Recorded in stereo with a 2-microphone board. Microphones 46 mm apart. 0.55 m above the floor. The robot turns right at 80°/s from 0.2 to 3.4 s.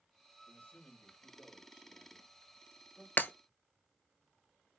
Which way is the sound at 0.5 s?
115° left.